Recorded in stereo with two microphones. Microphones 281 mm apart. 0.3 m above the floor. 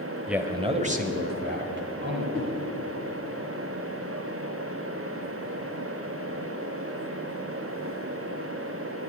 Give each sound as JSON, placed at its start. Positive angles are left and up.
{"t": 0.3, "sound": "a man speaking", "side_deg": 0, "distance_m": 1.0}
{"t": 2.3, "sound": "a whoosh", "side_deg": 5, "distance_m": 5.0}